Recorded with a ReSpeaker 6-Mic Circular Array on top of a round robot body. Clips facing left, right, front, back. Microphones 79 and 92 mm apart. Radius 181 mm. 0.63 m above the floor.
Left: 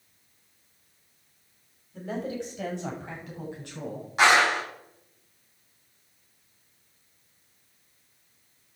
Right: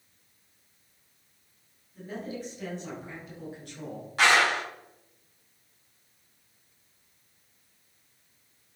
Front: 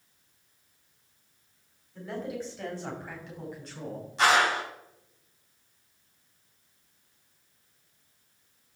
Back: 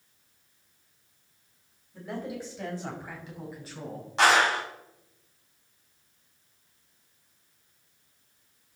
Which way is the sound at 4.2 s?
160° left.